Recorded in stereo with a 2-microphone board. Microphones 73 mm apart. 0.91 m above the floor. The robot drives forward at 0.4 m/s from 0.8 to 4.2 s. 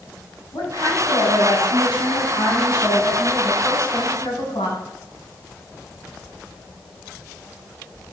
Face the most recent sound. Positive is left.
turn(degrees=85)